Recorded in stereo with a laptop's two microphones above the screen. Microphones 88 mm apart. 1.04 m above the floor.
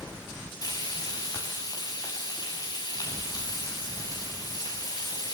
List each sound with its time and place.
0.6 s frying: 45° left (ahead or behind), 7 m